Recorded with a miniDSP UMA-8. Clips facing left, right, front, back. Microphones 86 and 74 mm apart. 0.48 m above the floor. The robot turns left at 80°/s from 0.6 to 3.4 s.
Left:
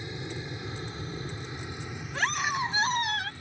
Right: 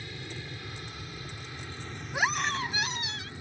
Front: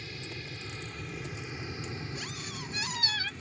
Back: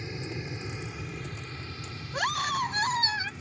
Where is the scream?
160° right; by 3.3 s 105° left.